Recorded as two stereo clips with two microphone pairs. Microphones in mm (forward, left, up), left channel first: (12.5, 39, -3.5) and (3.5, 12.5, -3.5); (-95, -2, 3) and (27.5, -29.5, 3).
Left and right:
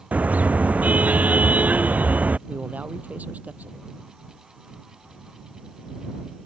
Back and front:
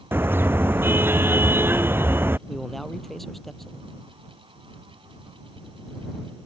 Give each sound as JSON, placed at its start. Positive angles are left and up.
{"t": 0.1, "sound": "a car horn", "azimuth_deg": -85}
{"t": 2.5, "sound": "a man speaking", "azimuth_deg": -105}